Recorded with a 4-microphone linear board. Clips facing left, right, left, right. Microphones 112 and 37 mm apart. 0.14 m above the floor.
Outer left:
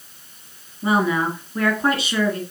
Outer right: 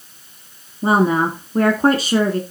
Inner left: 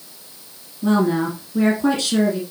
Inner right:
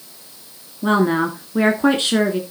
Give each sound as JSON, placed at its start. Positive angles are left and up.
{"t": 0.8, "sound": "a woman speaking", "side_deg": -40, "distance_m": 1.5}